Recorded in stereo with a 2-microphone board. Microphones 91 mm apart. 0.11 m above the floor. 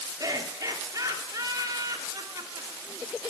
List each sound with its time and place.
0.2 s laughter: 40° right (ahead or behind), 2 m